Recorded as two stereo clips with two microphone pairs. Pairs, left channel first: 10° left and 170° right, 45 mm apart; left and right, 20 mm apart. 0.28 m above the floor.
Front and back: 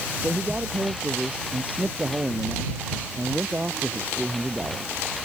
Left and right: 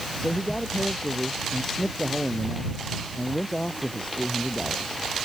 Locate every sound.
0.2 s a man speaking: 135° left